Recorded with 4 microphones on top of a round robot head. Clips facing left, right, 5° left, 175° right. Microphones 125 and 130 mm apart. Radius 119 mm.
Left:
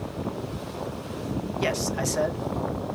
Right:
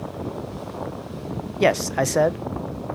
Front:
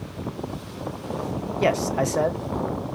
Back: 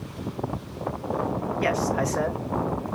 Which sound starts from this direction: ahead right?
A man speaking, at 1.6 s.